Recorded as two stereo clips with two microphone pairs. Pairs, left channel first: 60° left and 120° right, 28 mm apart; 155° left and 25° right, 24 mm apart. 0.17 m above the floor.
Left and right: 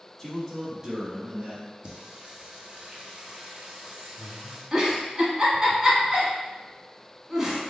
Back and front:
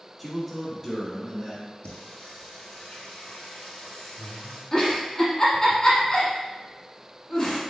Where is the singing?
175° right, 1.2 m.